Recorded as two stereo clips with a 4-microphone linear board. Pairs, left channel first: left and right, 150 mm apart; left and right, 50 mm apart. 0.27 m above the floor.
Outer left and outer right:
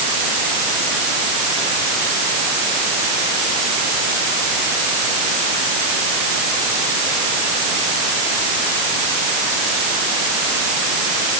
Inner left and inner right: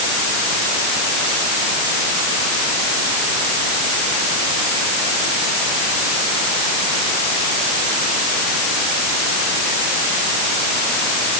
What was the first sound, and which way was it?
Only background noise.